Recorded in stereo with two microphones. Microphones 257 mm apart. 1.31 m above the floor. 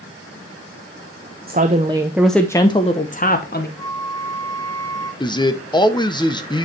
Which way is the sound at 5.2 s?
15° left (ahead or behind).